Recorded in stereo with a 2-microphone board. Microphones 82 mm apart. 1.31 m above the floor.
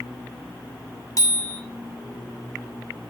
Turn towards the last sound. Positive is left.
turn(degrees=45)  # may be behind; listen again after turning